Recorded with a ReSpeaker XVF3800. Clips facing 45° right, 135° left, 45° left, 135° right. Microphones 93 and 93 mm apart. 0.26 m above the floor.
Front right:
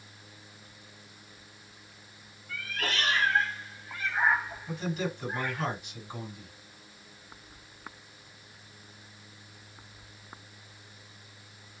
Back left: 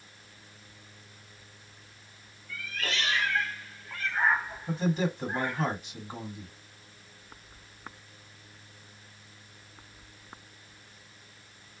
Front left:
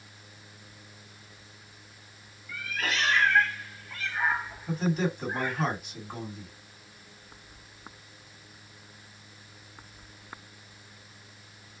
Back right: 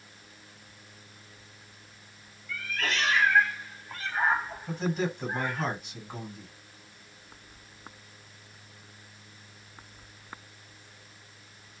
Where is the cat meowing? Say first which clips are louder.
Front right 2 dB, even; 30° right, 0.9 m; by 5.7 s 165° right, 1.3 m.